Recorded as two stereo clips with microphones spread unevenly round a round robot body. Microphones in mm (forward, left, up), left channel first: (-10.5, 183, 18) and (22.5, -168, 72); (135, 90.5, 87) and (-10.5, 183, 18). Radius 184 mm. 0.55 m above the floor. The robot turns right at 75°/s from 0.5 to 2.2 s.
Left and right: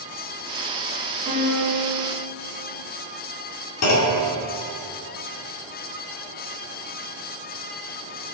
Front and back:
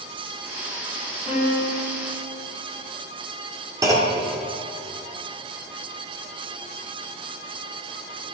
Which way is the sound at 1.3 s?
150° right.